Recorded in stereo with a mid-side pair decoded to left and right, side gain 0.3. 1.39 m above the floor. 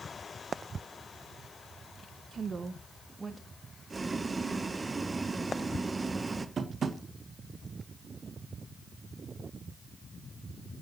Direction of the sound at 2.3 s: 65° right.